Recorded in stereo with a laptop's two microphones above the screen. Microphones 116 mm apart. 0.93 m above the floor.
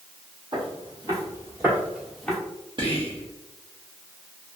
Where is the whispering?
45° right (ahead or behind), 0.6 m.